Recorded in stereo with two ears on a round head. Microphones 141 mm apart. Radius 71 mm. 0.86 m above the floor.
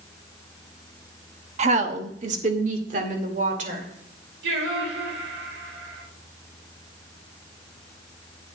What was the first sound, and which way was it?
A woman speaking, 45° right (ahead or behind).